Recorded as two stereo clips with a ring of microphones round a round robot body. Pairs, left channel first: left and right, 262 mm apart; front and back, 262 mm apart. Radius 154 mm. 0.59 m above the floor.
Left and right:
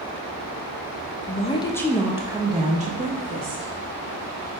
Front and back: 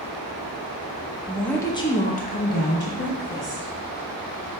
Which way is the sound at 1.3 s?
95° left.